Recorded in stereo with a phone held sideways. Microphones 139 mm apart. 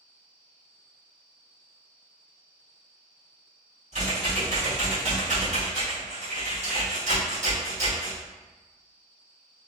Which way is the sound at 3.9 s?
55° right (ahead or behind).